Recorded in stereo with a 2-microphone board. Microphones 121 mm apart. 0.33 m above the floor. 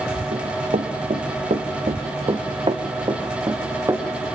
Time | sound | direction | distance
0.3 | running footsteps | 80° right | 2.0 m